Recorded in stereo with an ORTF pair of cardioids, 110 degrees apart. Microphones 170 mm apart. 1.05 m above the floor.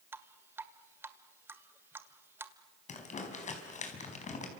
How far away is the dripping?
About 1.8 m.